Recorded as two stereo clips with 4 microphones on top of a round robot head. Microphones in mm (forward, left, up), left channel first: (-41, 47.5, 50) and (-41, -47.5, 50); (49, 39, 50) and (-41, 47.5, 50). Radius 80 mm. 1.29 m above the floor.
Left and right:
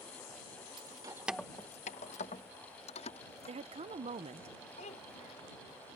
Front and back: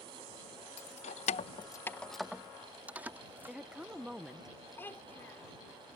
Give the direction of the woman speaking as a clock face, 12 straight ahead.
3 o'clock.